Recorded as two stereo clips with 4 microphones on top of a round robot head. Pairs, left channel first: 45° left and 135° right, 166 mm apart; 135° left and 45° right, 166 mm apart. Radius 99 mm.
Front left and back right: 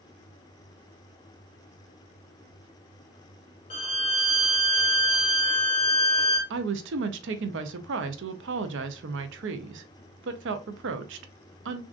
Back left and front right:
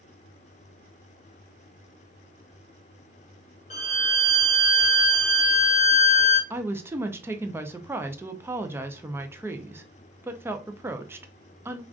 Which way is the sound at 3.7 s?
90° left.